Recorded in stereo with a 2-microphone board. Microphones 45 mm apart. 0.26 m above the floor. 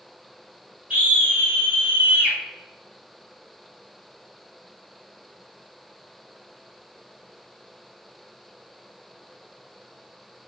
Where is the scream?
35° right (ahead or behind), 1.6 m.